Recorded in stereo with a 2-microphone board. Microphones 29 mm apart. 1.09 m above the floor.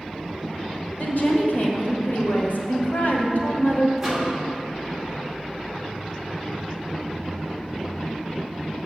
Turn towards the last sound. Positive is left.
turn(degrees=-10)  # may be behind; listen again after turning